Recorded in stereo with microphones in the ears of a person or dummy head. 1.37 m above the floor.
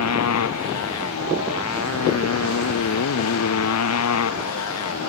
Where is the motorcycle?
80° left.